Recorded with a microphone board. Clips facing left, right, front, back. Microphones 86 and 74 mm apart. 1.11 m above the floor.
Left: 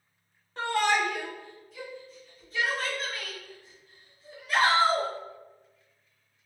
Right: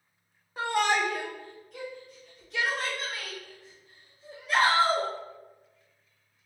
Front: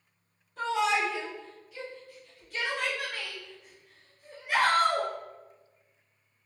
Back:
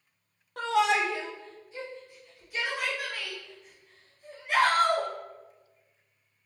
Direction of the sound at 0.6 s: 170° right.